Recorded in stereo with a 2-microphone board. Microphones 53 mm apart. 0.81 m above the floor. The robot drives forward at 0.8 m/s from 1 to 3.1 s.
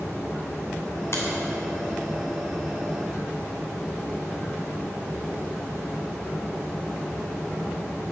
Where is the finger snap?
55° left (ahead or behind), 2.5 m.